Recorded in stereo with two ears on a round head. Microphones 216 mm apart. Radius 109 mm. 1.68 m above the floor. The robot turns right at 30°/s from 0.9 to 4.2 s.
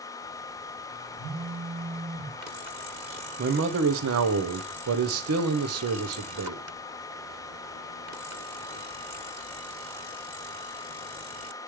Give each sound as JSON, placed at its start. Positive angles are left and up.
{"t": 1.2, "sound": "a phone buzzing", "azimuth_deg": -105, "distance_m": 4.5}
{"t": 3.4, "sound": "a man speaking", "side_deg": -45, "distance_m": 0.8}